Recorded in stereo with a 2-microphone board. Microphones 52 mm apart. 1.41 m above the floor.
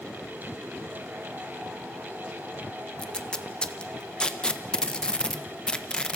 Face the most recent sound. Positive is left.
turn(degrees=15)  # may be behind; listen again after turning